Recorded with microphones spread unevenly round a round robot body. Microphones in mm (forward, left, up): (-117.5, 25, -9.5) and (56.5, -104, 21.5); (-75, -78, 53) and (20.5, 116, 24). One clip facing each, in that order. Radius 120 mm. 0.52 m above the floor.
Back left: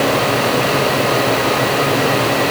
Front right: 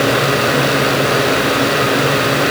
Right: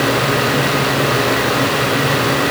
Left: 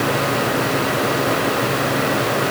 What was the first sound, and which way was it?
Only background noise.